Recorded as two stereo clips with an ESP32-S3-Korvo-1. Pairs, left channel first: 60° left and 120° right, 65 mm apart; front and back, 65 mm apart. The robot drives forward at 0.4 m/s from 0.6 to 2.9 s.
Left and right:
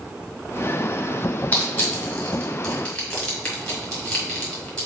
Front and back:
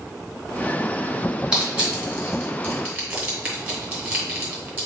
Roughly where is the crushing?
Behind left.